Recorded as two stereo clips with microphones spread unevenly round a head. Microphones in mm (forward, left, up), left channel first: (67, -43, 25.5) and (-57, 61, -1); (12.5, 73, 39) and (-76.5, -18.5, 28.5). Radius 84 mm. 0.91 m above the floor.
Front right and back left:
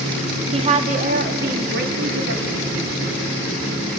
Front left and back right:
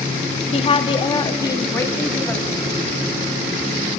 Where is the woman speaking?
90° left, 1.6 m; by 2.6 s 130° left, 2.5 m.